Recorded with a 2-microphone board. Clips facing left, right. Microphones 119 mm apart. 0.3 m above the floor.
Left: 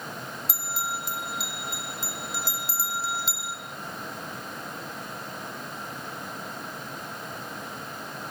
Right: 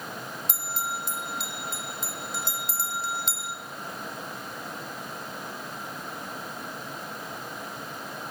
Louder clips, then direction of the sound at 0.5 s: Left 1 dB; 5° left (ahead or behind).